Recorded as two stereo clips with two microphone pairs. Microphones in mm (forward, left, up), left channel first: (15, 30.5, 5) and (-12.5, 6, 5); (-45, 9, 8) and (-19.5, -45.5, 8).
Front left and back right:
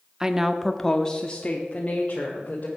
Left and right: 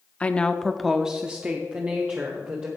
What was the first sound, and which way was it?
A woman speaking, 160° left.